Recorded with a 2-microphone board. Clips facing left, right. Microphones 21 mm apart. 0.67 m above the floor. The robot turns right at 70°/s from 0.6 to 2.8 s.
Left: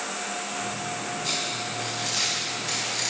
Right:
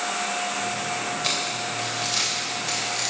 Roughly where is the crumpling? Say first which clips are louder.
Right 1 dB; right.